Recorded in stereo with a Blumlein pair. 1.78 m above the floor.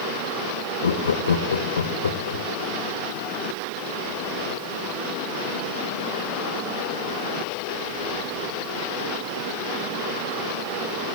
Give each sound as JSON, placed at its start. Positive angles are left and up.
{"t": 0.8, "sound": "laughter", "azimuth_deg": 70, "distance_m": 1.6}